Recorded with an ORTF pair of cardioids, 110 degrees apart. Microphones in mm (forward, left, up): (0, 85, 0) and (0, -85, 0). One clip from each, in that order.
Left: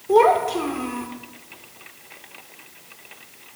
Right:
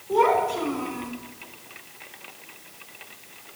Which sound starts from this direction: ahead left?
A child speaking, at 0.1 s.